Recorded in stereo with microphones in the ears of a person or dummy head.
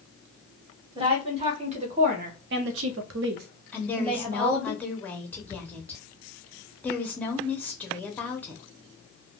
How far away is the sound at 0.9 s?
About 1.5 m.